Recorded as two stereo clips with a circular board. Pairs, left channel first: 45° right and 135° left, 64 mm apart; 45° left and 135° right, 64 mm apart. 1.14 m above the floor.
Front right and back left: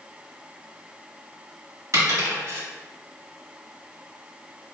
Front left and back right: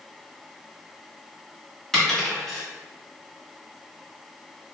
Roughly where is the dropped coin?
Behind left.